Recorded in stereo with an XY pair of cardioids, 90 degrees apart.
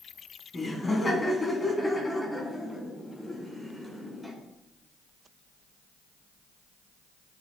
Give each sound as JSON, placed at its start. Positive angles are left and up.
{"t": 0.5, "sound": "laughter", "azimuth_deg": 30, "distance_m": 4.0}